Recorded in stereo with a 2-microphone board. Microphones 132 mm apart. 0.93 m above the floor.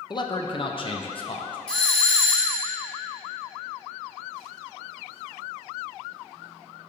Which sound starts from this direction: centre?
A doorbell, at 1.7 s.